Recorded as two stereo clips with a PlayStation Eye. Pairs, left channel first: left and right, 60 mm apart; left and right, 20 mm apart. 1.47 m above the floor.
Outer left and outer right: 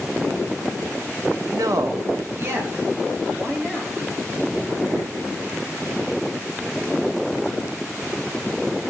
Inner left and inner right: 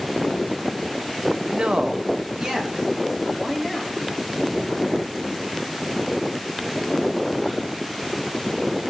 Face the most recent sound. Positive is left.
turn(degrees=-40)  # may be behind; listen again after turning